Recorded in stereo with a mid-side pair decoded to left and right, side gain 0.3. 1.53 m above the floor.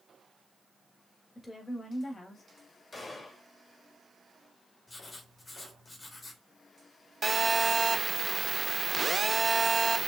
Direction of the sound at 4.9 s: 25° left.